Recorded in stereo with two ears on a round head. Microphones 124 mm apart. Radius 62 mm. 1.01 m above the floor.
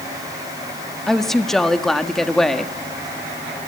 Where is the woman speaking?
Centre (ahead or behind), 1.6 m.